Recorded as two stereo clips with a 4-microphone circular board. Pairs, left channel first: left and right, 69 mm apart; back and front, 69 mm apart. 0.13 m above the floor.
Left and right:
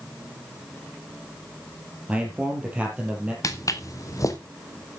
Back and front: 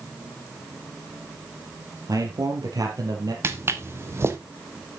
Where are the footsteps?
50° left, 1.7 m.